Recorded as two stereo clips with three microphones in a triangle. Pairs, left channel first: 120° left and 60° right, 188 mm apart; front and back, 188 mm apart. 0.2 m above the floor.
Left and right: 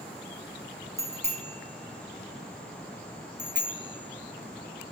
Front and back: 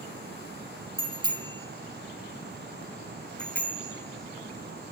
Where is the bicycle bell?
120° right, 2.5 m; by 4.9 s 65° right, 2.5 m.